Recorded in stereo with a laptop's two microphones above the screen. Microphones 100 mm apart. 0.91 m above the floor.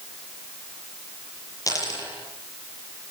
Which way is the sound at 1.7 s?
35° left (ahead or behind).